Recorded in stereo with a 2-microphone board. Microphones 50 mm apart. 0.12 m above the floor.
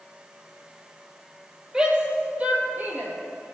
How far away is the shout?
About 3 m.